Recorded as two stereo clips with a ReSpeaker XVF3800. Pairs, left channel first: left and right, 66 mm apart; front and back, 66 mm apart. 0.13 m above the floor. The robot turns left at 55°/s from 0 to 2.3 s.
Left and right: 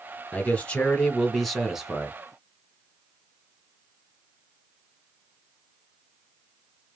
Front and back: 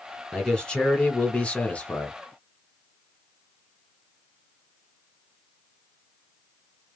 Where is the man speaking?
70° left, 1.1 m; by 2.2 s 35° right, 1.1 m.